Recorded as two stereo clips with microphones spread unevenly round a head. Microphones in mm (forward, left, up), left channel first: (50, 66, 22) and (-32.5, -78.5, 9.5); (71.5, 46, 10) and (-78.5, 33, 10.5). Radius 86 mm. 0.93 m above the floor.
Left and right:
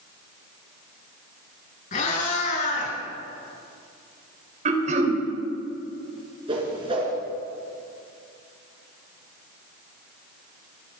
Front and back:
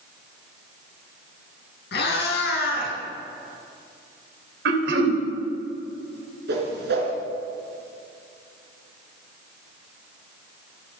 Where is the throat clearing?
170° right, 3 m.